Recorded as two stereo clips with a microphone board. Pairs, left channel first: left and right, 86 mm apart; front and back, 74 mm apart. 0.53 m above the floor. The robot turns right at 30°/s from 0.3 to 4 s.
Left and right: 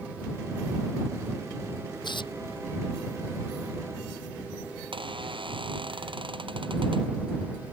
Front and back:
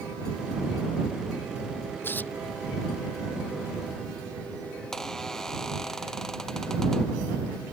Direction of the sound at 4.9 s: 80° right.